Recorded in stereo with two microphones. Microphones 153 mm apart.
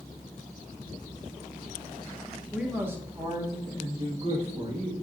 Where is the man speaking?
5° right (ahead or behind), 1.6 m; by 4.9 s 45° right (ahead or behind), 3 m.